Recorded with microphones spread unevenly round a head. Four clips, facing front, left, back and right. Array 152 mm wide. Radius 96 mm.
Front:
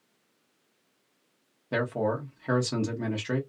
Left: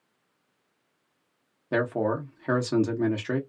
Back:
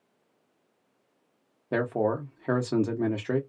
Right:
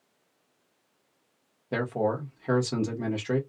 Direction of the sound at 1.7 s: 175° left.